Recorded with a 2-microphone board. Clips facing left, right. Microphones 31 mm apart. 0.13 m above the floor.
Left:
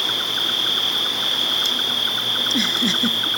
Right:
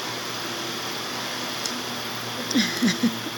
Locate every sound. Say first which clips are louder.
0.0 s an insect: left 9 dB; 70° left (ahead or behind)
2.4 s a giggle: left 1 dB; 5° right (ahead or behind)